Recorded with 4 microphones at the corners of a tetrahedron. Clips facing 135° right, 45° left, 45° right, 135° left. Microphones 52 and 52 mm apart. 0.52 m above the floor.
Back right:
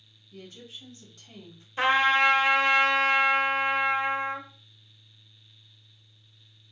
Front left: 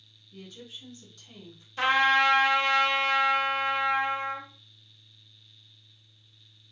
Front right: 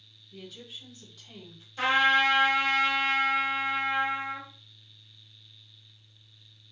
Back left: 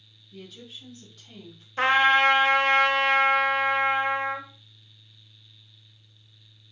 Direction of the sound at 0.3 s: 130° right.